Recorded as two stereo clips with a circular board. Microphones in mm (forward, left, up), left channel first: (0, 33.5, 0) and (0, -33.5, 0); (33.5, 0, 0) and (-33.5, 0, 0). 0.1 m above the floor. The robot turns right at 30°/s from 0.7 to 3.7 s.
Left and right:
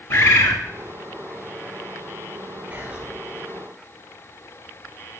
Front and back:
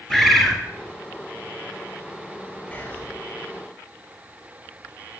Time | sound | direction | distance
0.1 | a bird | 90° left | 0.9 m
2.7 | whispering | 45° right | 1.5 m